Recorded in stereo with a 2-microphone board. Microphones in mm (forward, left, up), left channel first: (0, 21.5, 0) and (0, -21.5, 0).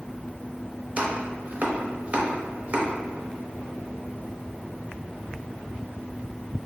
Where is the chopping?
40° right (ahead or behind), 0.7 m.